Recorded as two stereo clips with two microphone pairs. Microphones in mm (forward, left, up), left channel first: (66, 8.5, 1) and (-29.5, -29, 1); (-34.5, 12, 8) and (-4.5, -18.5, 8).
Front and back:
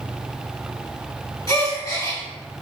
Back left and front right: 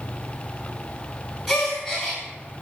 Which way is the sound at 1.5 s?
60° left.